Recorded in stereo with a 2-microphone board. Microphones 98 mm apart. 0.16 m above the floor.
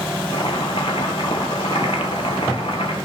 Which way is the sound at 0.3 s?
70° left (ahead or behind).